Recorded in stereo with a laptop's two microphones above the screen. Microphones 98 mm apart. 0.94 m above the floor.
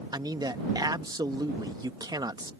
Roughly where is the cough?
I don't hear a cough.